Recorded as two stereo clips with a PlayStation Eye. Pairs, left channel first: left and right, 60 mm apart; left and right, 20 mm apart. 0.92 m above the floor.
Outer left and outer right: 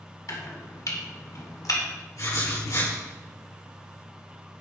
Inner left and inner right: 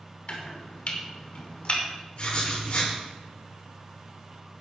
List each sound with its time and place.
0.3 s chopping: 65° left (ahead or behind), 2 m
2.2 s writing: 55° left (ahead or behind), 6 m